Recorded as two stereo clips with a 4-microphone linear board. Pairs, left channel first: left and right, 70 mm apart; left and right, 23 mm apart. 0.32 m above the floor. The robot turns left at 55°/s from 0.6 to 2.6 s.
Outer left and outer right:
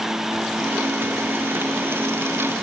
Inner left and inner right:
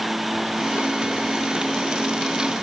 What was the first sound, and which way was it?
Only background noise.